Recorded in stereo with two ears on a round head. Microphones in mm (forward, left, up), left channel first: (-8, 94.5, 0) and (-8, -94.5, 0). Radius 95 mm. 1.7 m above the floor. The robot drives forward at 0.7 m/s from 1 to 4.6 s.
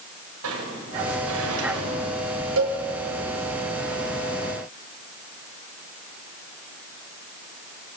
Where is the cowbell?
70° right (ahead or behind), 5 m.